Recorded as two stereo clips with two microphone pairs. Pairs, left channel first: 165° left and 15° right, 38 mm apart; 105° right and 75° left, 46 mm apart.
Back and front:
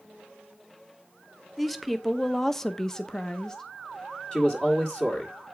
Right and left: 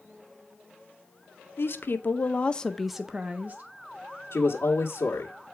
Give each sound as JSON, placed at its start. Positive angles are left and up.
{"t": 1.6, "sound": "a woman speaking", "azimuth_deg": -105, "distance_m": 0.9}
{"t": 4.3, "sound": "a man speaking", "azimuth_deg": -130, "distance_m": 1.4}